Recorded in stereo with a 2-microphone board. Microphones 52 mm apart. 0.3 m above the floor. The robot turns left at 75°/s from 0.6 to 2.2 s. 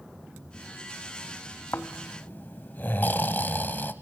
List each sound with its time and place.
1.7 s snoring: 85° left, 0.8 m; by 3.9 s 50° left, 0.8 m